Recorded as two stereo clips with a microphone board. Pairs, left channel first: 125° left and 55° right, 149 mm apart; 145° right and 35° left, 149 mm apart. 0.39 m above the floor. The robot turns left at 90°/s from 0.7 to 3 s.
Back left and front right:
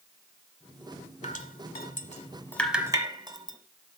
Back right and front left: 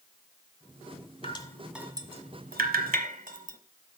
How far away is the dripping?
About 1.1 m.